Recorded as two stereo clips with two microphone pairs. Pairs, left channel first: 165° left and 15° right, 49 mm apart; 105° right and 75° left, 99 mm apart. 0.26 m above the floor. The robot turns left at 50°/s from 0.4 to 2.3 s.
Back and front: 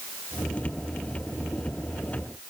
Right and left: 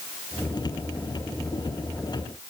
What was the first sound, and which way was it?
Only background noise.